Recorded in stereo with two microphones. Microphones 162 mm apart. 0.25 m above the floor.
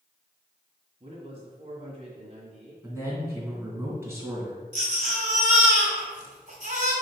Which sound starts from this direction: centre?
A man speaking, at 2.8 s.